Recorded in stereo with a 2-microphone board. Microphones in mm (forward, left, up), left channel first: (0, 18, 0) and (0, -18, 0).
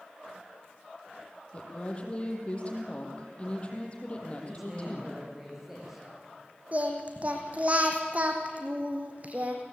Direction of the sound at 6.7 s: 40° right (ahead or behind).